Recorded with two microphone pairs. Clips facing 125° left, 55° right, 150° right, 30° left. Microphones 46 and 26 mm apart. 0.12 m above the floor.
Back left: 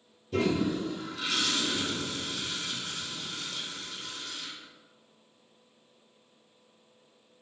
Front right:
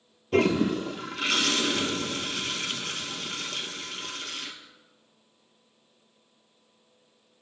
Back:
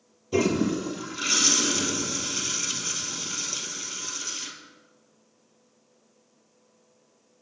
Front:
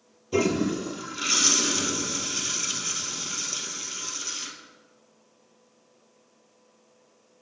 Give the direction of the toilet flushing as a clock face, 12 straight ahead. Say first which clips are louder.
Front right 5 dB, even; 2 o'clock.